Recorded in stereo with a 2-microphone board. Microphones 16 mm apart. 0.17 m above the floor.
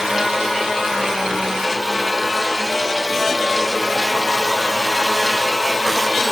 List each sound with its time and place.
Only background noise.